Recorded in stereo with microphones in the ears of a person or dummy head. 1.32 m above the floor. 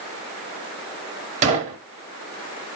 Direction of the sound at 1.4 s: 40° right (ahead or behind).